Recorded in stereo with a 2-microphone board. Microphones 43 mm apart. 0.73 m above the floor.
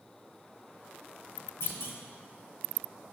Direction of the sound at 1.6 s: 75° left (ahead or behind).